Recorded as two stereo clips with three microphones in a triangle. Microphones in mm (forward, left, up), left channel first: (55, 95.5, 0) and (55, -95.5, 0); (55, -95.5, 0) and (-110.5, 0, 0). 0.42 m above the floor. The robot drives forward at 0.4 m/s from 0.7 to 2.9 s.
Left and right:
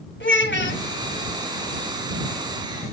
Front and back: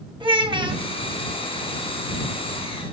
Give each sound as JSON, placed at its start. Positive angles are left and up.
{"t": 0.2, "sound": "a child speaking", "azimuth_deg": 85, "distance_m": 1.7}